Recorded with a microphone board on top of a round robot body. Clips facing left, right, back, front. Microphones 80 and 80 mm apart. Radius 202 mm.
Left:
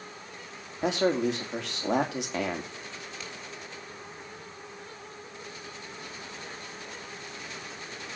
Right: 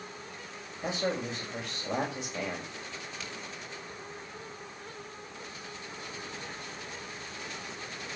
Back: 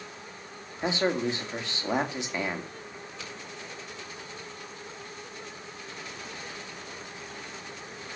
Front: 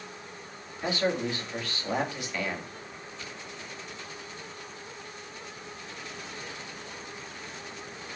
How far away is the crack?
About 5.5 m.